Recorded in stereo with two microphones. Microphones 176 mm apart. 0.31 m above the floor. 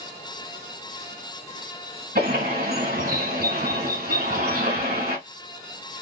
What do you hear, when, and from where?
2.1 s a bird: 50° right (ahead or behind), 1.4 m